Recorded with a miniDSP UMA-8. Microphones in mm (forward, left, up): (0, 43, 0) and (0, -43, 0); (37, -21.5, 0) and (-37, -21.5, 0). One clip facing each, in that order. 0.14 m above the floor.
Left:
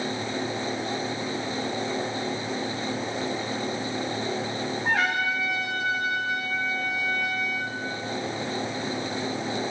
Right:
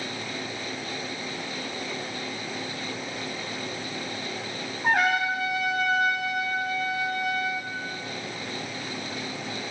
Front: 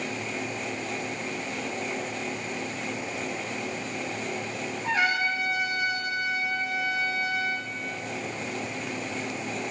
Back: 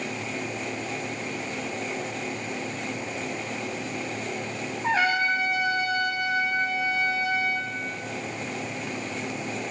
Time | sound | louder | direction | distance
4.8 | a trumpet | right 3 dB, back 3 dB | 120° right | 5 m